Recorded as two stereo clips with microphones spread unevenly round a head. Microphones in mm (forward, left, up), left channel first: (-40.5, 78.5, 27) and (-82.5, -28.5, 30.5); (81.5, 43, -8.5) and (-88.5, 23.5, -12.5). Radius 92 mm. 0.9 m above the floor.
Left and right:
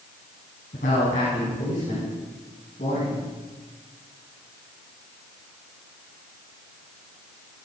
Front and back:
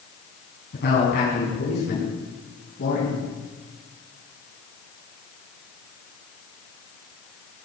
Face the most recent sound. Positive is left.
turn(degrees=25)